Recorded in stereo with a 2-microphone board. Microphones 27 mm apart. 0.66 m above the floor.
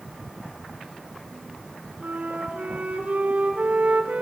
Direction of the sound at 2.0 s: 70° right (ahead or behind).